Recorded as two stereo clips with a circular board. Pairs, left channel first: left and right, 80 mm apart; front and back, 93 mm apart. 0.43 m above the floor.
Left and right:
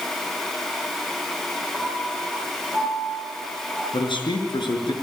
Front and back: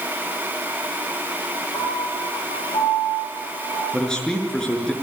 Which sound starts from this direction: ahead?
A piano, at 1.7 s.